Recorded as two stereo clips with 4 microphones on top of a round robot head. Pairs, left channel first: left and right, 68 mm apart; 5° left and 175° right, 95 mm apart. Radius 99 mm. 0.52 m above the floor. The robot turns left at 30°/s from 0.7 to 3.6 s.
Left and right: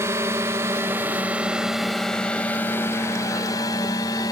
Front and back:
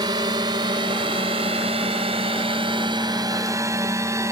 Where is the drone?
140° right; by 4.3 s 125° left.